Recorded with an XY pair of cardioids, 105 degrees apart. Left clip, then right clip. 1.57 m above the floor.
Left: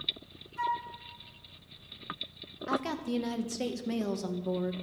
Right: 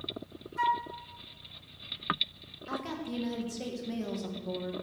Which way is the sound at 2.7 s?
50° left.